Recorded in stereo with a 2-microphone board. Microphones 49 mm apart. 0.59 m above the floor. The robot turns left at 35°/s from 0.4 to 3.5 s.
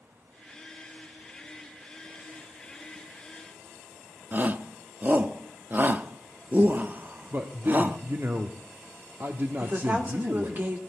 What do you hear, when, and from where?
4.3 s a shout: 40° right (ahead or behind), 0.7 m
7.3 s a man speaking: 45° right (ahead or behind), 0.8 m
9.6 s a woman speaking: 40° right (ahead or behind), 1.7 m